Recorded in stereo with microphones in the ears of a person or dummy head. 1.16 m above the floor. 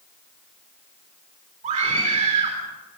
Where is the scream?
40° right (ahead or behind), 4 m.